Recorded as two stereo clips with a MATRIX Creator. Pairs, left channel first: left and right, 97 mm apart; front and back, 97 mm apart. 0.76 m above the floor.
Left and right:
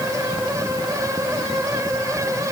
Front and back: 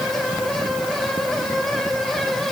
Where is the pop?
No pop in this recording.